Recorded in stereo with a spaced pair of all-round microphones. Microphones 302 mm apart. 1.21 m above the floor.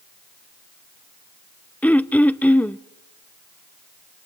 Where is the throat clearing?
5° left (ahead or behind), 0.5 m.